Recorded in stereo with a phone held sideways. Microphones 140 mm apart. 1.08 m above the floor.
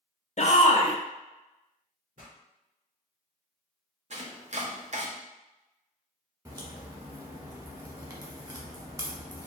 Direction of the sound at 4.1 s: 55° right (ahead or behind).